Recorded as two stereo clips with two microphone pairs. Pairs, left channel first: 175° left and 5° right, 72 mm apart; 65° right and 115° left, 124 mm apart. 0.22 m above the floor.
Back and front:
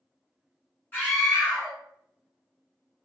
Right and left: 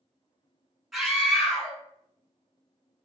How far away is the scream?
About 1.1 m.